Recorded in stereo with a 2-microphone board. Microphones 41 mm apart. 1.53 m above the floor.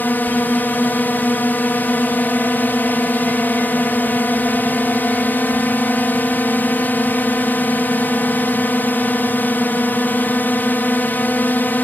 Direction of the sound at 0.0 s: 50° left (ahead or behind).